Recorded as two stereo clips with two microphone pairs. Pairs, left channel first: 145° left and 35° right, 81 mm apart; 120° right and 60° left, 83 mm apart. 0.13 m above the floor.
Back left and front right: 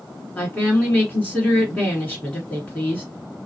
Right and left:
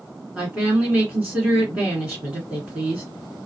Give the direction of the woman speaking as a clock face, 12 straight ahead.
8 o'clock.